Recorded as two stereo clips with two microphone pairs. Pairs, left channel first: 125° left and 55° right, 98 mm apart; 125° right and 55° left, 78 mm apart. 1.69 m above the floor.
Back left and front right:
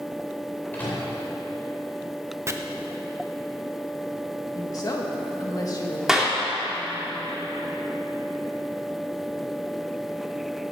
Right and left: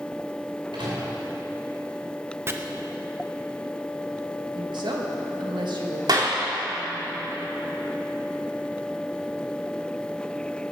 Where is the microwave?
50° left, 5 m.